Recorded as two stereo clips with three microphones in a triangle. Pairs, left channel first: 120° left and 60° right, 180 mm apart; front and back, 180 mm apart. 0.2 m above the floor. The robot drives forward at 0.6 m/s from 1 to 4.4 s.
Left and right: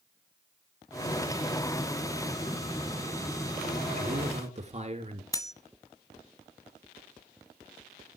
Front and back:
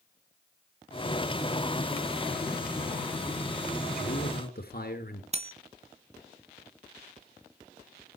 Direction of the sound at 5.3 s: Straight behind.